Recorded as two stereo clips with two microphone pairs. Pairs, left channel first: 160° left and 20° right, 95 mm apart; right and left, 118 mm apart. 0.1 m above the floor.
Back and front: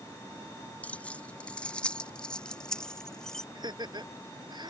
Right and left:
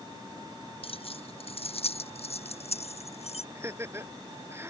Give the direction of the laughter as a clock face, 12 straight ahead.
11 o'clock.